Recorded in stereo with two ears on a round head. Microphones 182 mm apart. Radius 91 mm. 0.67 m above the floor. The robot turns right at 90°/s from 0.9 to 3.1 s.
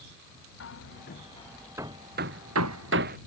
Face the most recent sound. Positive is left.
turn(degrees=-45)  # may be behind; listen again after turning